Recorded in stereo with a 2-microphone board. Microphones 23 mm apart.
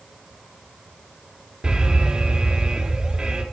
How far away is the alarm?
About 3 m.